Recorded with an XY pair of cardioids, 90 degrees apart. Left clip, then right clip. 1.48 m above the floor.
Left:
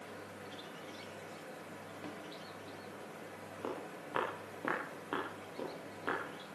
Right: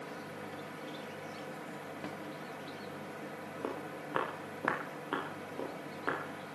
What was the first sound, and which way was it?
A fan, 65° right.